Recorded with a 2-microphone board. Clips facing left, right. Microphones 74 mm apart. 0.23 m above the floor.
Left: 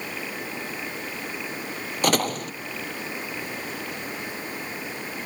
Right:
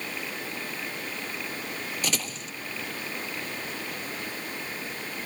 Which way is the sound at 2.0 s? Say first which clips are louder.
Left 10 dB; 55° left (ahead or behind).